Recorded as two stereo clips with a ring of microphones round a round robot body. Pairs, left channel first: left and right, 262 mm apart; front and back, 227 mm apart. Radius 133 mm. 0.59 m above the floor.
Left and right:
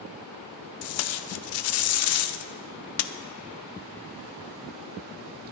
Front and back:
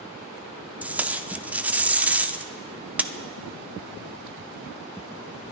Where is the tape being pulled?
95° left, 0.7 m.